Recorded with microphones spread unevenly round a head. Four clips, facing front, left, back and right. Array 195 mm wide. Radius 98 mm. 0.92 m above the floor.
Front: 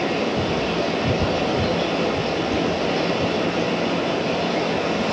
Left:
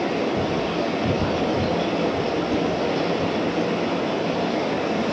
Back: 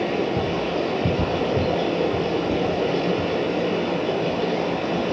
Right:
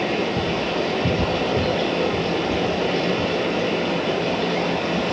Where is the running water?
145° right, 6.5 m.